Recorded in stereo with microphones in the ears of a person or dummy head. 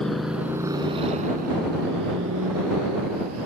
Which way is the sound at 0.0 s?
5° left (ahead or behind).